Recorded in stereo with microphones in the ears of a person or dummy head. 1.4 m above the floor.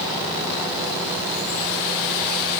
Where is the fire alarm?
No fire alarm in this recording.